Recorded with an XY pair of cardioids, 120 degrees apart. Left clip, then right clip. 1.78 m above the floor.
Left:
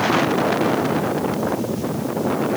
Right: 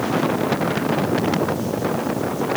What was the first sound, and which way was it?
Only background noise.